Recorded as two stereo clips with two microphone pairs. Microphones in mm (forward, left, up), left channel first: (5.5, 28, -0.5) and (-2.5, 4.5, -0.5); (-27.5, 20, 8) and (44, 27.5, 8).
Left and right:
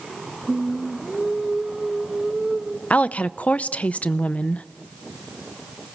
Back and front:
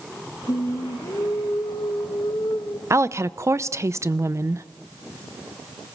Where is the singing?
Straight behind, 2 m.